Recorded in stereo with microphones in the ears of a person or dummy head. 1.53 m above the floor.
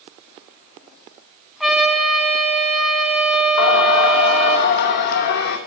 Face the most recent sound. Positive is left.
turn(degrees=60)  # may be behind; listen again after turning